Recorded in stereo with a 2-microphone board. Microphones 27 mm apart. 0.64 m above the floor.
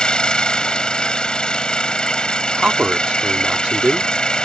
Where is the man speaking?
50° right (ahead or behind).